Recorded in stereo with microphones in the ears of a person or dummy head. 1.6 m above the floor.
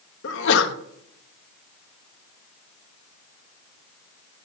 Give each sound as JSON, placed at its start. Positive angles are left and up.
{"t": 0.2, "sound": "a sneeze", "side_deg": 70, "distance_m": 1.2}